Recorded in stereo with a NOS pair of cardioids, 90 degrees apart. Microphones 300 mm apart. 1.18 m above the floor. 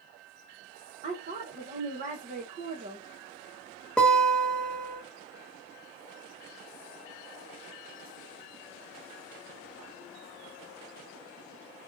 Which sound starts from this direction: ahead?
A guitar, at 4.0 s.